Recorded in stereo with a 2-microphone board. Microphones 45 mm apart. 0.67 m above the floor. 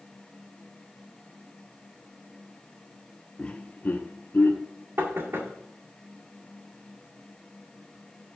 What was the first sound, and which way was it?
Laughter, 20° left (ahead or behind).